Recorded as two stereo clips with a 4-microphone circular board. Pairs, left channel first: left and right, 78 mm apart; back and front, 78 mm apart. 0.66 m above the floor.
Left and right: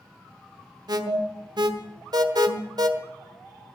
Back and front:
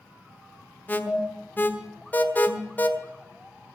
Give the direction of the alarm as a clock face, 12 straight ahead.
4 o'clock.